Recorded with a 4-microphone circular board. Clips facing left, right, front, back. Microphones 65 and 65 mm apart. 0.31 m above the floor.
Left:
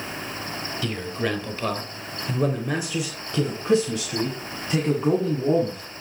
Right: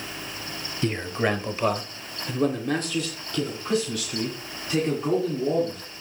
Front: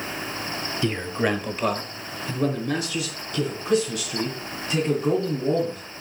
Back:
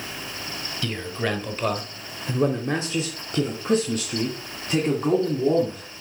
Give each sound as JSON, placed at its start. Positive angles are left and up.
{"t": 0.8, "sound": "a man speaking", "azimuth_deg": -50, "distance_m": 1.1}